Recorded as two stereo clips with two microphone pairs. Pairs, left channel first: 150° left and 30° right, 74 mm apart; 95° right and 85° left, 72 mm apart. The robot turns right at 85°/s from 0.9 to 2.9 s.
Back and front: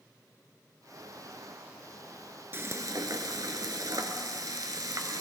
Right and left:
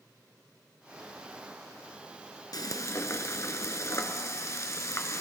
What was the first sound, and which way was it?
Frying, 85° right.